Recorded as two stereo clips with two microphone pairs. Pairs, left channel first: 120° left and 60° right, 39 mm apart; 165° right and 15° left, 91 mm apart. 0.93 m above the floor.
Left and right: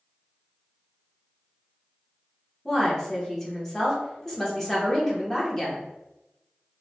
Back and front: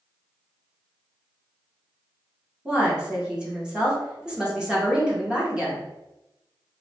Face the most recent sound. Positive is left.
turn(degrees=75)